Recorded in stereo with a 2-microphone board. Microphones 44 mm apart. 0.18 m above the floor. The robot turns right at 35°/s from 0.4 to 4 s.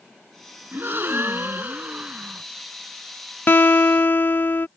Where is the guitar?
50° left (ahead or behind).